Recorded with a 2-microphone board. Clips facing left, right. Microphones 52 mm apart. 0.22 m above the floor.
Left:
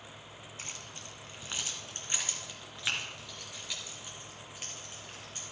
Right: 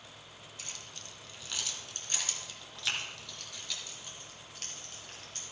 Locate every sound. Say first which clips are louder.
0.6 s keys jangling: left 2 dB; 40° left (ahead or behind), 1.2 m; by 5.4 s 15° left (ahead or behind), 3 m